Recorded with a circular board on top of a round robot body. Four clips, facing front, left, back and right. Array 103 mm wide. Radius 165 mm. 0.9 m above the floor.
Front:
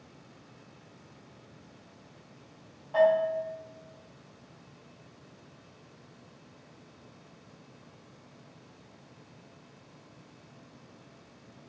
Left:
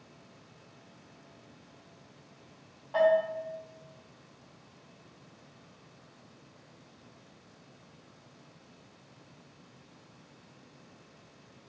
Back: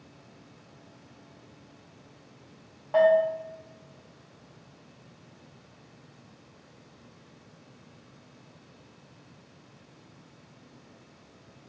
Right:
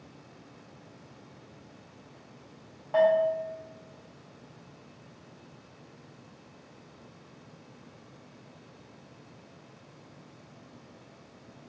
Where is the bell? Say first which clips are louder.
Right 2 dB, back 3 dB; 140° right, 0.9 m.